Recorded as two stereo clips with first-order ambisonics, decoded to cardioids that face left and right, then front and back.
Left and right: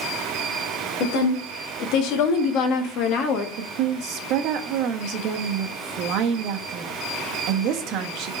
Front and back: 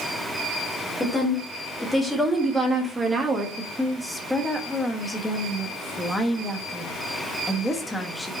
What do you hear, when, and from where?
1.0 s a woman speaking: 75° left, 2 m; by 3.5 s 115° left, 1.3 m
3.6 s a woman speaking: 80° right, 1.0 m